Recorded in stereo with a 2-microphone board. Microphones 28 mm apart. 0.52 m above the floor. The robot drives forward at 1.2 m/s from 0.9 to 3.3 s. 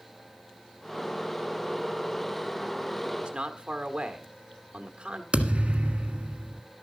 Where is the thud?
45° right (ahead or behind), 1.5 m.